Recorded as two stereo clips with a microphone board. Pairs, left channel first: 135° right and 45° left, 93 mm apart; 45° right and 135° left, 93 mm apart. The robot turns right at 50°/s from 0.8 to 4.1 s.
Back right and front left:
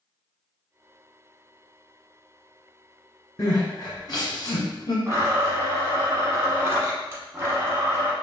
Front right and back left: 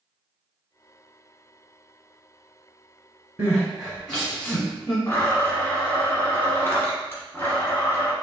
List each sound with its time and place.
3.4 s crying: 170° right, 1.6 m; by 5.0 s 135° right, 1.6 m
5.1 s a blender: 5° left, 1.0 m